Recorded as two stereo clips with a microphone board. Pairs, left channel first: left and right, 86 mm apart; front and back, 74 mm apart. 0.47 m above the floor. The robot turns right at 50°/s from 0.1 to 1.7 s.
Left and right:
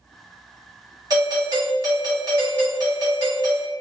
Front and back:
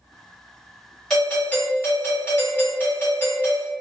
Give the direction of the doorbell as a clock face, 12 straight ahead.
3 o'clock.